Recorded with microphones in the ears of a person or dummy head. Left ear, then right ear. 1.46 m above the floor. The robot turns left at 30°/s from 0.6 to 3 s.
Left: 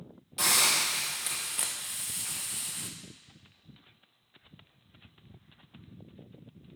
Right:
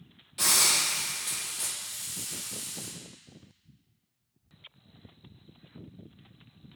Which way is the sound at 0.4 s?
155° left.